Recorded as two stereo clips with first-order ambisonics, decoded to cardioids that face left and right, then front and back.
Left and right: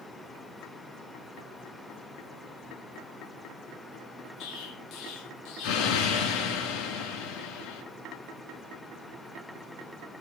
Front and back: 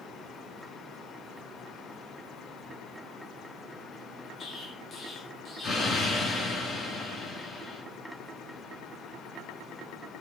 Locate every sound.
4.4 s an explosion: 60° left, 4 m